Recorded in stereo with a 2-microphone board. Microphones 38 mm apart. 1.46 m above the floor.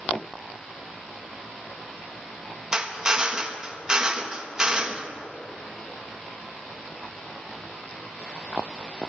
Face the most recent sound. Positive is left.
turn(degrees=-20)  # may be behind; listen again after turning